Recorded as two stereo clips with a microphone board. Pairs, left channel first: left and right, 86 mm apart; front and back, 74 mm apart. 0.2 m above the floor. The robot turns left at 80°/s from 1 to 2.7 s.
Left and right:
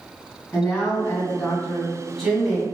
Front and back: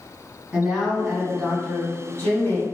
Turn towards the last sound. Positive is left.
turn(degrees=-35)